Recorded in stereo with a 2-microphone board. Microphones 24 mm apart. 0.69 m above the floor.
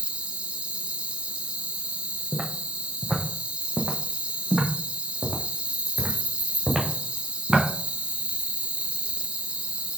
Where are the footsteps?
55° right (ahead or behind), 1.8 m; by 7.7 s 15° right (ahead or behind), 3.5 m.